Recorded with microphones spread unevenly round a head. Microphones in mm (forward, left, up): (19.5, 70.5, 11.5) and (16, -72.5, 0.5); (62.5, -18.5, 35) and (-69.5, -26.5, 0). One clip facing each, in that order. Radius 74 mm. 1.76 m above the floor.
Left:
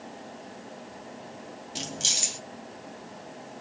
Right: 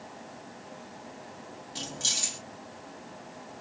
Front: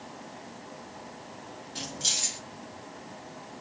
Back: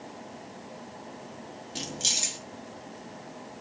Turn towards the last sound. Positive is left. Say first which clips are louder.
# left 3 dB, back 3 dB
turn(degrees=110)